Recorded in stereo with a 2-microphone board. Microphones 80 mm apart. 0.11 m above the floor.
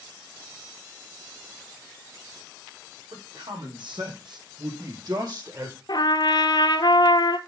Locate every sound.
3.1 s a man speaking: 80° right, 5 m; by 5.8 s 35° right (ahead or behind), 3 m
5.9 s a trumpet: 65° left (ahead or behind), 0.9 m